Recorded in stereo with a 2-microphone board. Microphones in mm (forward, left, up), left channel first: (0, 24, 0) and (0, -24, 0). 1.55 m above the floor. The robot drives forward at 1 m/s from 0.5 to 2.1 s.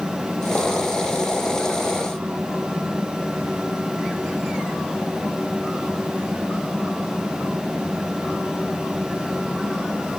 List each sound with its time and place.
Only background noise.